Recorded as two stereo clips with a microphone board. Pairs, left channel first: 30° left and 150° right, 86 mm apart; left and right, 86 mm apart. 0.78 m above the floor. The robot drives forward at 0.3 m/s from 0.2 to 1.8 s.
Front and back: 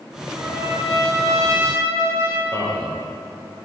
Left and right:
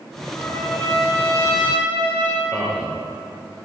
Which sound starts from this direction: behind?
A man speaking, at 2.5 s.